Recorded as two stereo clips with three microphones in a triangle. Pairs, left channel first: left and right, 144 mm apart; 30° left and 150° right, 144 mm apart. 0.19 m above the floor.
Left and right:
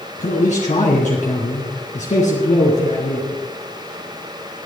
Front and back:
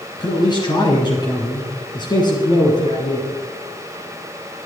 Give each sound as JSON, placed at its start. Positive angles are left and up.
{"t": 0.2, "sound": "a man speaking", "azimuth_deg": 85, "distance_m": 2.0}